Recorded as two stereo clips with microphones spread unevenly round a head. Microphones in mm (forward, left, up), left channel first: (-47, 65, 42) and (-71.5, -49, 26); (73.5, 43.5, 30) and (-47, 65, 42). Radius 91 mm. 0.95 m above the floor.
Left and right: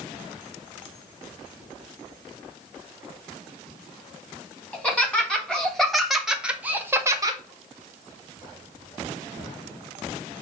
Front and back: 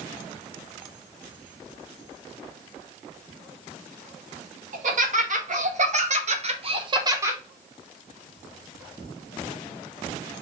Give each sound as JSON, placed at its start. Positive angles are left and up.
{"t": 4.7, "sound": "laughter", "azimuth_deg": 160, "distance_m": 2.0}